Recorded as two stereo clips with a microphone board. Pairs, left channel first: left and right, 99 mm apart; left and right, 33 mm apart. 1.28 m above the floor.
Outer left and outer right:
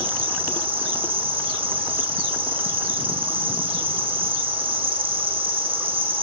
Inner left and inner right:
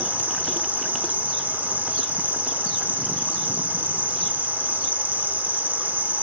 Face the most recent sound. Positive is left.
turn(degrees=-60)  # may be behind; listen again after turning